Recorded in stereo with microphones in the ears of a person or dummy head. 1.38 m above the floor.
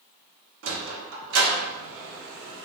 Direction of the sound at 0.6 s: 70° right (ahead or behind).